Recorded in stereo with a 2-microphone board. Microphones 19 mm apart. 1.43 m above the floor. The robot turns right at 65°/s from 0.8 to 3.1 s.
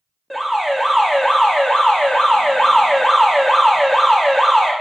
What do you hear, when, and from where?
0.3 s an alarm: 10° left, 1.8 m; by 4.7 s 160° left, 1.8 m